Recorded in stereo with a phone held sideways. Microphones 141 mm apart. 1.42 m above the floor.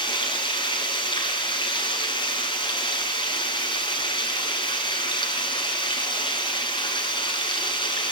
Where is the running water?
30° left (ahead or behind), 7 m.